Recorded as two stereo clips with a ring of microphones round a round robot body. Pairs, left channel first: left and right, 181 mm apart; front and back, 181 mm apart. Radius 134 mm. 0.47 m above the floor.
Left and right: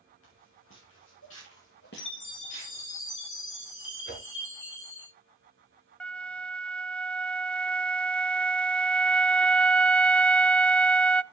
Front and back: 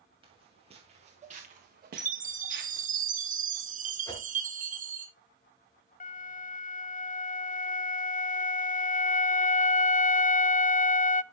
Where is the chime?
135° left, 3 m.